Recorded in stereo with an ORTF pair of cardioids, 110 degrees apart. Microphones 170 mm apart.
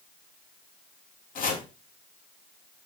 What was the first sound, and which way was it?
Chopping, 50° left.